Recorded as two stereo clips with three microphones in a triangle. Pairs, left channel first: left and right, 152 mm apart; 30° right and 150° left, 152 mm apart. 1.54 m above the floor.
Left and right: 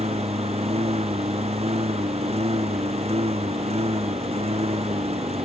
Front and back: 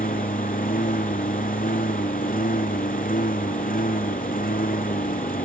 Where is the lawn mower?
45° right.